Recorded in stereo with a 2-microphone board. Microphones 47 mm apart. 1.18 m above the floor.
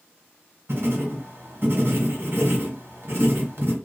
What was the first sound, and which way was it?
Writing, 60° right (ahead or behind).